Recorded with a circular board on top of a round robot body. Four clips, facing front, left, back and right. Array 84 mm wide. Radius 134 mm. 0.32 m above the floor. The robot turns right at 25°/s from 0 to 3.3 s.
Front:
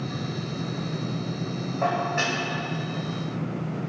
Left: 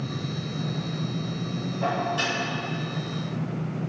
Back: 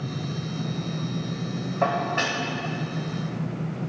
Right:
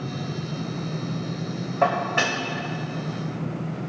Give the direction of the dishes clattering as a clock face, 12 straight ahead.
4 o'clock.